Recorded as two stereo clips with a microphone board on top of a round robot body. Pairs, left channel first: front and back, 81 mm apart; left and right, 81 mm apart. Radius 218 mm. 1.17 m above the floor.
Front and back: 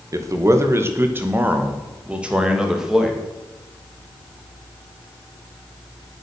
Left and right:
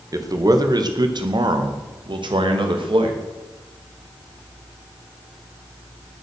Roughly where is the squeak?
No squeak in this recording.